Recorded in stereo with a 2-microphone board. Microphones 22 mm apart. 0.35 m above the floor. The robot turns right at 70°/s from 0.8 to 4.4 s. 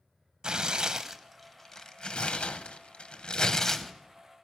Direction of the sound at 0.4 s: 40° right (ahead or behind).